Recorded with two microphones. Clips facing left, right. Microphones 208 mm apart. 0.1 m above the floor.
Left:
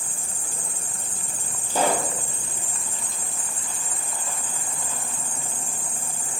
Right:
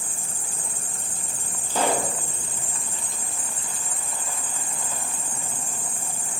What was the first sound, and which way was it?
An insect, 30° left (ahead or behind).